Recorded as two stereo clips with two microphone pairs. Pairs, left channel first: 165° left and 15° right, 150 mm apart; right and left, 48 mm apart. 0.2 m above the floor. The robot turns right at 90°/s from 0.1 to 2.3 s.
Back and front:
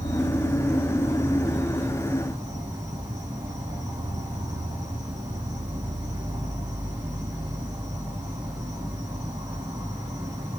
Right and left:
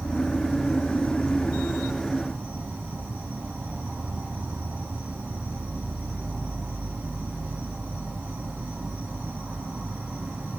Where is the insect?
160° right, 1.8 m; by 10.6 s 40° left, 1.8 m.